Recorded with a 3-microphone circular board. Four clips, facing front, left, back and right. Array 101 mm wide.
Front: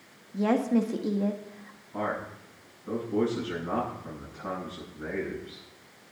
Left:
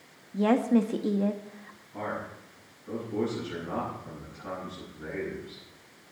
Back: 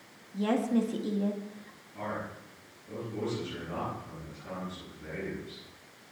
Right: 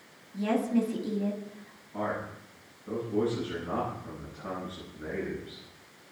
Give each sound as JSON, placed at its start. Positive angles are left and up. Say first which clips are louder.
{"t": 0.3, "sound": "a woman speaking", "louder": "left 4 dB, front 3 dB", "azimuth_deg": 65, "distance_m": 1.4}
{"t": 1.9, "sound": "a man speaking", "louder": "right 2 dB, front 5 dB", "azimuth_deg": -5, "distance_m": 9.5}